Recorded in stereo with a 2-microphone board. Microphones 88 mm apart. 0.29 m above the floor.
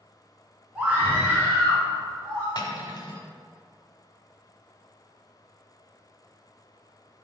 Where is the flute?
I don't hear a flute.